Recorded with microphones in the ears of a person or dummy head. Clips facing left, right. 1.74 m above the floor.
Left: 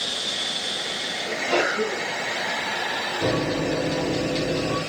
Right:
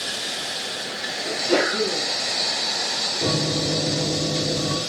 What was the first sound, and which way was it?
A sneeze, 75° right (ahead or behind).